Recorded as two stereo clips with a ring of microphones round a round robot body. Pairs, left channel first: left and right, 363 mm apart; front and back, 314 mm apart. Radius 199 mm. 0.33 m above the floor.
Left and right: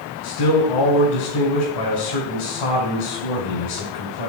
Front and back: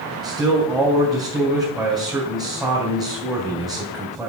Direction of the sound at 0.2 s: 90° left.